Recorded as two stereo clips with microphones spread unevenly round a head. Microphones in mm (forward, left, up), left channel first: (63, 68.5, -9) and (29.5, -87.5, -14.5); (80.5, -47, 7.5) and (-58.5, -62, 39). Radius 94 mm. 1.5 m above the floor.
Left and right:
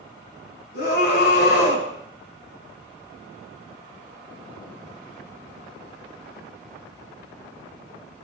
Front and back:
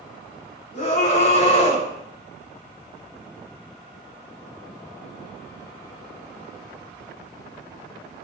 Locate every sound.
0.7 s a scream: 65° left, 5.5 m